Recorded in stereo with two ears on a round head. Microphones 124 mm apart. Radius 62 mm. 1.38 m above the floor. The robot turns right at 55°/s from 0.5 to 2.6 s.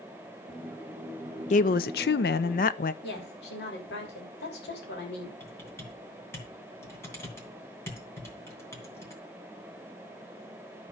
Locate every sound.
1.5 s a woman speaking: 55° left, 0.6 m; by 2.9 s 115° left, 0.6 m
3.0 s a woman speaking: 90° left, 3 m
5.4 s typing on a keyboard: 20° left (ahead or behind), 2.5 m